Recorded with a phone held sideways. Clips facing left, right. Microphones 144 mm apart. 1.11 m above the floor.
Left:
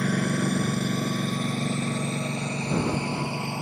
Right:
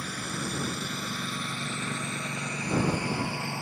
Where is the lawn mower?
65° left (ahead or behind); by 3.6 s 20° left (ahead or behind).